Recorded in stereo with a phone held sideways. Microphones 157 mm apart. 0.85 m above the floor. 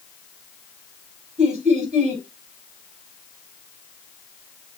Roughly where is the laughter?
Right.